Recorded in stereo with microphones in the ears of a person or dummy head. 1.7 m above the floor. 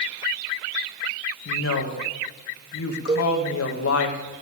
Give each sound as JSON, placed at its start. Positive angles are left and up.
{"t": 1.4, "sound": "a woman speaking", "side_deg": 80, "distance_m": 2.0}
{"t": 3.1, "sound": "a cowbell", "side_deg": -25, "distance_m": 0.9}